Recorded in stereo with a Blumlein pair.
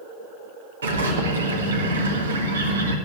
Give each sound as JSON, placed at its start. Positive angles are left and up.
{"t": 0.8, "sound": "a bird", "azimuth_deg": -70, "distance_m": 1.6}